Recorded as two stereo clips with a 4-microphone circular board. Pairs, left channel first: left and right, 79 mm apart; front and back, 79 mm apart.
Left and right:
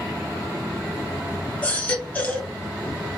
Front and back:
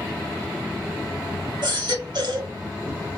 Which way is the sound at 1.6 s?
160° left.